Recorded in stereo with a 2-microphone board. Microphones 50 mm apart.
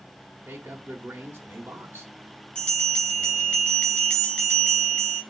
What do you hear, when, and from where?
0.5 s a man speaking: 45° right (ahead or behind), 1.5 m
2.5 s a bell: 20° left (ahead or behind), 3.5 m